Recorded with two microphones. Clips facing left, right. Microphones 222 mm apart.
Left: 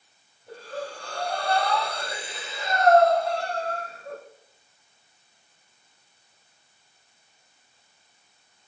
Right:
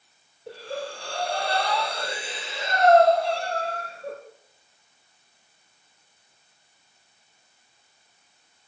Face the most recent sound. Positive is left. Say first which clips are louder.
# right 2 dB
turn(degrees=-80)